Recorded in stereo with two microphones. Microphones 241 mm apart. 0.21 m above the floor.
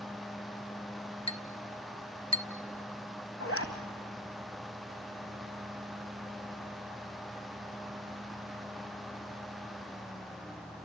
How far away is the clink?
About 0.7 m.